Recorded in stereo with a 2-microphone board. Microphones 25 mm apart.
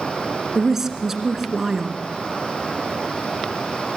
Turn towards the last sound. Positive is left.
turn(degrees=-15)  # may be behind; listen again after turning